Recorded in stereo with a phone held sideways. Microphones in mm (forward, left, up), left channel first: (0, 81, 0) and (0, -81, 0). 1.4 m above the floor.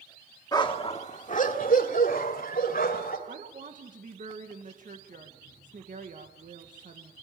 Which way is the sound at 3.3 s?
55° right (ahead or behind).